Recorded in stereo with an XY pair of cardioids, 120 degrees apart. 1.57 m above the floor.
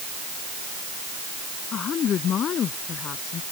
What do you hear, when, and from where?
1.7 s a woman speaking: 50° left